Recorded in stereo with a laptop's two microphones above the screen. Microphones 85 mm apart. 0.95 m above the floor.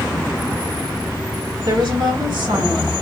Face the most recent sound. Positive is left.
turn(degrees=-75)  # may be behind; listen again after turning